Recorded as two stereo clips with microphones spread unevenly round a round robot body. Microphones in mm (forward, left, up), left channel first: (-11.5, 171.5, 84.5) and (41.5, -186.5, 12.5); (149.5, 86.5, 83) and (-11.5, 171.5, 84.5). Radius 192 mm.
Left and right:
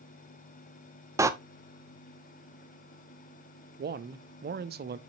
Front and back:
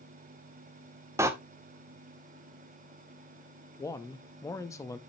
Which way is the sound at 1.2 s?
140° right.